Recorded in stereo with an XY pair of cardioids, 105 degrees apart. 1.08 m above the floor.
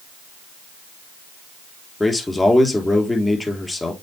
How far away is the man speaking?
About 3 m.